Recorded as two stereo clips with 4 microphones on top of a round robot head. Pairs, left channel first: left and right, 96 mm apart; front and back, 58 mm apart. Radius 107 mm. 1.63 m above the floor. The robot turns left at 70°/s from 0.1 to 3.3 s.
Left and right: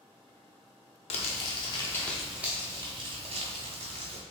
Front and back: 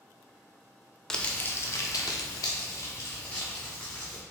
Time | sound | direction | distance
1.1 | crumpling | 80° left | 0.6 m